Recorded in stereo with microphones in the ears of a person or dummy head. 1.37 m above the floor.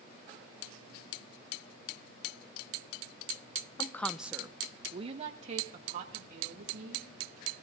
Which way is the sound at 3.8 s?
25° left (ahead or behind).